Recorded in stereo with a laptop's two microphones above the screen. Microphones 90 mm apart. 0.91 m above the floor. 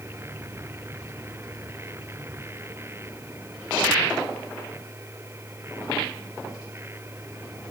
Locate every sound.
0.0 s a machine running: 30° right (ahead or behind)